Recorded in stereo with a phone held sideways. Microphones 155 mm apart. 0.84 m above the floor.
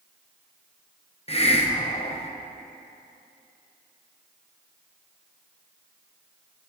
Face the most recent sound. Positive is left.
turn(degrees=40)  # may be behind; listen again after turning